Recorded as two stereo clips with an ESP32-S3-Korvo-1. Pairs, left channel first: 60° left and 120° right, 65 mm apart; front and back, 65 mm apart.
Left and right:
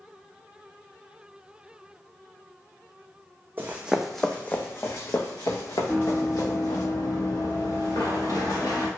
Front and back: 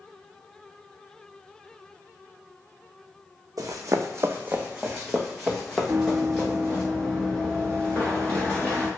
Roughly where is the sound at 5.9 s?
Behind left.